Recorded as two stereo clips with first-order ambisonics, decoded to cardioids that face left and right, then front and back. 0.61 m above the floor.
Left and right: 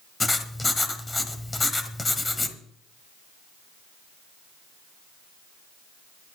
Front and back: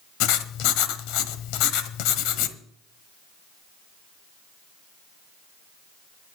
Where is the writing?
10° left, 1.3 m.